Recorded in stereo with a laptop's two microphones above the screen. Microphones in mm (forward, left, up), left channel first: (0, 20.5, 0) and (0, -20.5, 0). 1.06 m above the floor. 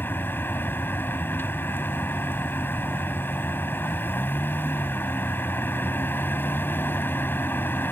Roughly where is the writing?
I don't hear writing.